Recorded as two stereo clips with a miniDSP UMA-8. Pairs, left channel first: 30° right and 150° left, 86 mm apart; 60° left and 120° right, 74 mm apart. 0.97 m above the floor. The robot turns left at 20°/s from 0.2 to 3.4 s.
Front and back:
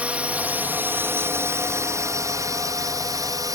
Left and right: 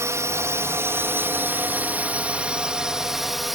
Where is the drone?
140° right; by 3.6 s 155° left.